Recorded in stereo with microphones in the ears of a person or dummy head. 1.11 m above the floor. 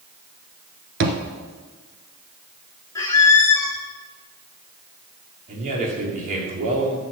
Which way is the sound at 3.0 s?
15° left (ahead or behind).